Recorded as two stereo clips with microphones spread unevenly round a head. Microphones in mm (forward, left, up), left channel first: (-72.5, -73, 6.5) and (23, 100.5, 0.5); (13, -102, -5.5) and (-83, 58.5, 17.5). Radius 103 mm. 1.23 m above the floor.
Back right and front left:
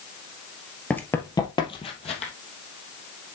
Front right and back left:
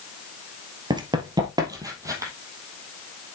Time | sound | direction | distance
0.9 | running footsteps | 165° left | 1.5 m